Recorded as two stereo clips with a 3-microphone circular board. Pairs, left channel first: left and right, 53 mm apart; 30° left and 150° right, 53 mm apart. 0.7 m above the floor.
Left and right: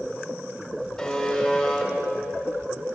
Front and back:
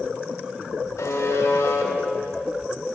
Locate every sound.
1.0 s a buzzer: 10° left, 1.1 m